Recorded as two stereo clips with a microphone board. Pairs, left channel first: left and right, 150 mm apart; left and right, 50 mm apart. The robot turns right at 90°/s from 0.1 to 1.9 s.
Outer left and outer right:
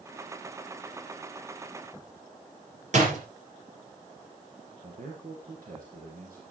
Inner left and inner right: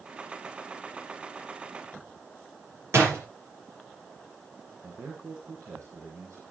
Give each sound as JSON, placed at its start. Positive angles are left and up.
{"t": 2.9, "sound": "a door slam", "side_deg": -55, "distance_m": 4.5}
{"t": 4.8, "sound": "a man speaking", "side_deg": -70, "distance_m": 3.5}